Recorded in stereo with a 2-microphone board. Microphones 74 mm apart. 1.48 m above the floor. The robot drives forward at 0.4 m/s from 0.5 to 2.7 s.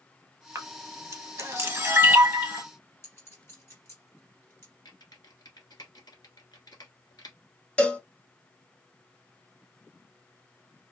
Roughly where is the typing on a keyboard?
Left.